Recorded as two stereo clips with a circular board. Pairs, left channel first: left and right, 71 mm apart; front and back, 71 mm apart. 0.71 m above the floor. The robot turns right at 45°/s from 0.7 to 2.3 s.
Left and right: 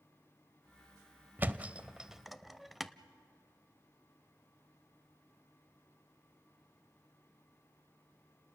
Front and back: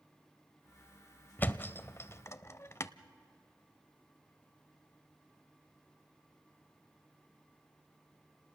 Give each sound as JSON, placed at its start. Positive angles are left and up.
{"t": 1.4, "sound": "a thud", "azimuth_deg": -45, "distance_m": 0.5}